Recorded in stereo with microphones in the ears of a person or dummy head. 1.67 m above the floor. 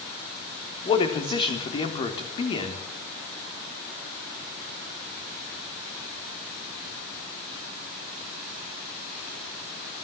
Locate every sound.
0.8 s a man speaking: 30° left (ahead or behind), 3.5 m